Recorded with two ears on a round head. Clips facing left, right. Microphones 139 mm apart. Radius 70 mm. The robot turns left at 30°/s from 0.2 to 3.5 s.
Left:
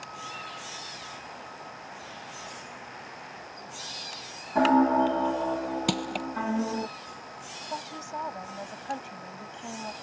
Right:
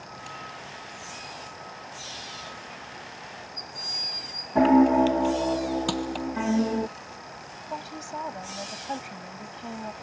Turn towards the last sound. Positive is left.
turn(degrees=-10)  # may be behind; listen again after turning